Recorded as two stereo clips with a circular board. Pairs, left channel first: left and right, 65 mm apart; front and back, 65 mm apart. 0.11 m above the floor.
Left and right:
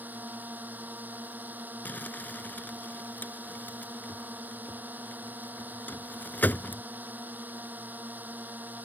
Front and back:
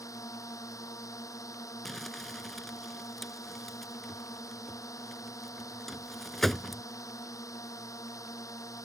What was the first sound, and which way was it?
A drone, 30° right.